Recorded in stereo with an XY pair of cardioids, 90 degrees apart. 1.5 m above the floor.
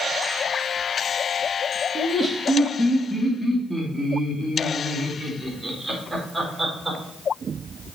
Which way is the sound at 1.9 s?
15° left.